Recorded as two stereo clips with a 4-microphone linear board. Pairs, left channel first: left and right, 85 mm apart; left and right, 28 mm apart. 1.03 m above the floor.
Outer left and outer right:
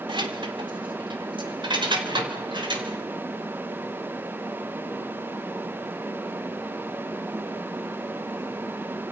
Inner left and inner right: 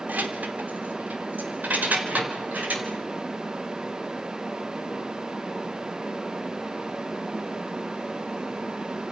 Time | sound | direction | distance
0.1 | keys jangling | 80° right | 2.5 m